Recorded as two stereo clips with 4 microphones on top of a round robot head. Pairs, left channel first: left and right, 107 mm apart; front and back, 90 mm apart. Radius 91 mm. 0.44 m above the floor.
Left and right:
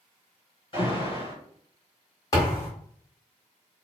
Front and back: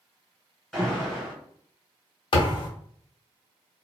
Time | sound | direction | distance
0.7 | an alarm | 80° left | 1.9 m
2.3 | a thud | 25° left | 1.1 m